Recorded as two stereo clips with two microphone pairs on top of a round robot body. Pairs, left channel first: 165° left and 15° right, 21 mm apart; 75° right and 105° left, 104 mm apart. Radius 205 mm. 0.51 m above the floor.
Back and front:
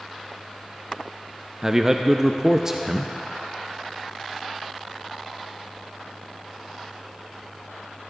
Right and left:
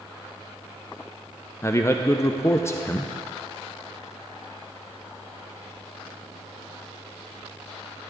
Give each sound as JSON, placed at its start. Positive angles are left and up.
{"t": 1.6, "sound": "a man speaking", "azimuth_deg": -35, "distance_m": 0.8}